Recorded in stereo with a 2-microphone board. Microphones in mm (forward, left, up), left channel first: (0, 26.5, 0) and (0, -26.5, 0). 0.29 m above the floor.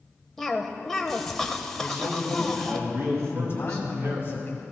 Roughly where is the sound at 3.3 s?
Left.